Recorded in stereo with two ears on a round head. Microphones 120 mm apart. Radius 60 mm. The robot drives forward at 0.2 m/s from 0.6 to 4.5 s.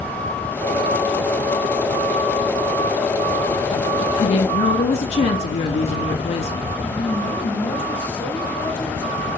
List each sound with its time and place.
4.2 s a woman speaking: 55° left (ahead or behind), 1.0 m; by 6.6 s 50° left (ahead or behind), 1.0 m
6.8 s a woman speaking: 15° left (ahead or behind), 4 m